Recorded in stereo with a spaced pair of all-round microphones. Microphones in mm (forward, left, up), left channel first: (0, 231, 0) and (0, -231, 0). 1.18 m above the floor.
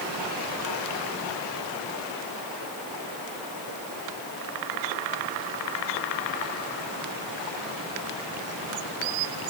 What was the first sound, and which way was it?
Only background noise.